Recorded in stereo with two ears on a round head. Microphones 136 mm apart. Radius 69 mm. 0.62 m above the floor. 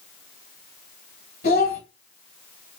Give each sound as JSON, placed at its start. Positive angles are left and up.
{"t": 1.4, "sound": "a child speaking", "side_deg": 80, "distance_m": 2.5}